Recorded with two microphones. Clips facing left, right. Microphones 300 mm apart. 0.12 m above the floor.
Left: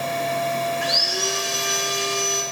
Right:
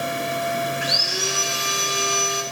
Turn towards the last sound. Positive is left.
turn(degrees=-10)  # may be behind; listen again after turning